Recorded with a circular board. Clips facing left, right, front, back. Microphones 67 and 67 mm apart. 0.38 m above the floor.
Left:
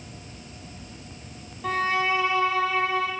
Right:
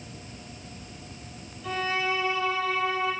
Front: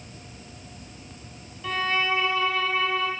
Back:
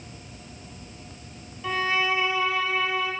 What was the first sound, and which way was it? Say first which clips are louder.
A violin: left 4 dB, back 1 dB; 100° left.